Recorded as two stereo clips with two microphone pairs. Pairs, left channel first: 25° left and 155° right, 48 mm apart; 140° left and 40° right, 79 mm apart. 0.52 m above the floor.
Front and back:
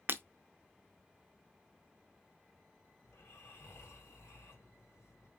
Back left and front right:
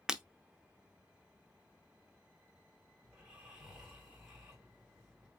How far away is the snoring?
About 2.5 m.